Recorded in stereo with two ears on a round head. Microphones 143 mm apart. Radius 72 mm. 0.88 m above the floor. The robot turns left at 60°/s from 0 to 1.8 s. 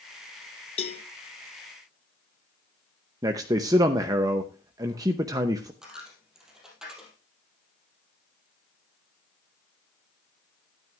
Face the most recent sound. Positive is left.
turn(degrees=-5)  # may be behind; listen again after turning